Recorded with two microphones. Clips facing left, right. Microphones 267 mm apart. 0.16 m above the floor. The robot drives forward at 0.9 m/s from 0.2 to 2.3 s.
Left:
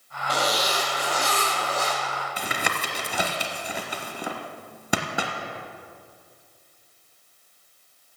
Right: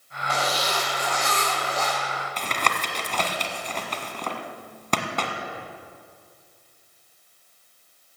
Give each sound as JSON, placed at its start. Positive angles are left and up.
{"t": 0.3, "sound": "a zipper", "side_deg": 40, "distance_m": 5.5}
{"t": 2.4, "sound": "tapping", "side_deg": 10, "distance_m": 1.4}